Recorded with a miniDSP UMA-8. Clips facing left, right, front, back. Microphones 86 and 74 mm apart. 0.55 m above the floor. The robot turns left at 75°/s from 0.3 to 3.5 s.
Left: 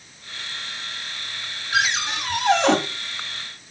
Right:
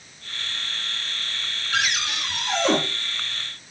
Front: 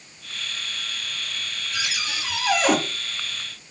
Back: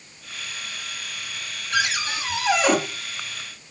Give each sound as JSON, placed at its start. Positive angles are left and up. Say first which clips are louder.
{"t": 1.7, "sound": "a cupboard door", "louder": "left 3 dB, back 7 dB", "azimuth_deg": 170, "distance_m": 1.1}